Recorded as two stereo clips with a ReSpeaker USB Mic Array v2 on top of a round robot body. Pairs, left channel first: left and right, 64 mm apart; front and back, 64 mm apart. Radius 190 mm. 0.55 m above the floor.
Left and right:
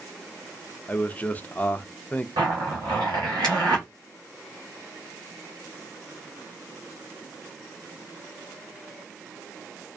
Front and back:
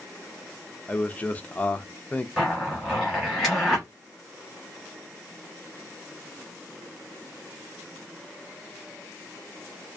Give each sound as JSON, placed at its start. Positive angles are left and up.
{"t": 0.9, "sound": "a man speaking", "azimuth_deg": 50, "distance_m": 0.6}
{"t": 2.4, "sound": "a zipper", "azimuth_deg": -85, "distance_m": 0.7}